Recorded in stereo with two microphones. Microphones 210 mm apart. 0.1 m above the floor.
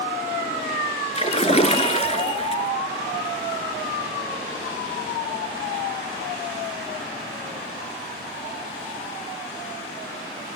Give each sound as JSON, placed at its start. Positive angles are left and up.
{"t": 1.1, "sound": "a splash", "side_deg": 30, "distance_m": 0.6}